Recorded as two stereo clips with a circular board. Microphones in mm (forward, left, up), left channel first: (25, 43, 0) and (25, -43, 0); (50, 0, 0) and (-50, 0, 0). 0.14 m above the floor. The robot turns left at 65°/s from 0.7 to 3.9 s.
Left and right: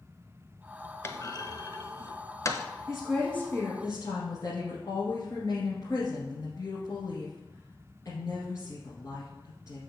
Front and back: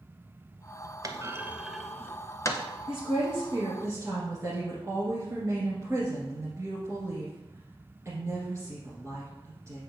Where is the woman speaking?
165° right, 1.8 m; by 9.8 s 125° left, 1.8 m.